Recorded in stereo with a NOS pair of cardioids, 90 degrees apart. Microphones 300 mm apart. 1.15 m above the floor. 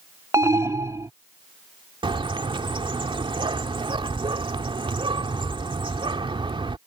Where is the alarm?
10° right.